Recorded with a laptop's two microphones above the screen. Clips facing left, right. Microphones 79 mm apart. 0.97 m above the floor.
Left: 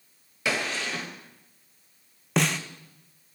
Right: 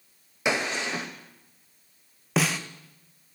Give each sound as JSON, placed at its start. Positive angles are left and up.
{"t": 0.5, "sound": "a gunshot", "side_deg": -20, "distance_m": 0.7}
{"t": 2.4, "sound": "a snare drum", "side_deg": 0, "distance_m": 0.5}